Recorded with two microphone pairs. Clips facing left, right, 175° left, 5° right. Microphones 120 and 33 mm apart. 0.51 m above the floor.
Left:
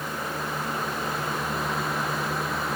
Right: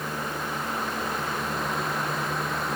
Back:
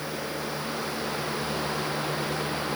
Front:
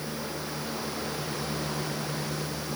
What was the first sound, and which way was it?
Only background noise.